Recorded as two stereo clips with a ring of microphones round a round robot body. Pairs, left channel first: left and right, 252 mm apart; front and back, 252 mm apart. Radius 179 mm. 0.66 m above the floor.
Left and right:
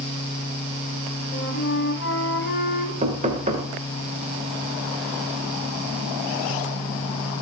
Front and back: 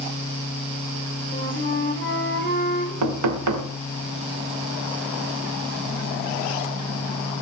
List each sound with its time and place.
1.3 s a flute: 45° left, 3.5 m
3.0 s knocking: 160° right, 2.0 m